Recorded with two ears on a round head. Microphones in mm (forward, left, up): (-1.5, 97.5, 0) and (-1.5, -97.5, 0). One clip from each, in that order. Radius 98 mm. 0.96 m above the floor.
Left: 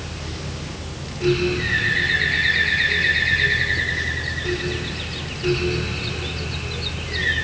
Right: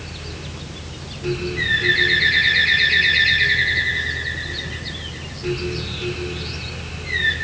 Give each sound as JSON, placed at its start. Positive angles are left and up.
{"t": 1.6, "sound": "a bird", "side_deg": -80, "distance_m": 9.5}